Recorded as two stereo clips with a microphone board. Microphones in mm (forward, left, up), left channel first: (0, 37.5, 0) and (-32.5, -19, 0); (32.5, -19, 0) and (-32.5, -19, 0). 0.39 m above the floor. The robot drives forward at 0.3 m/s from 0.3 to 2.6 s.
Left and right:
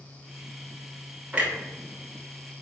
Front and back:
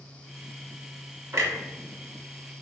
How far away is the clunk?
About 0.6 m.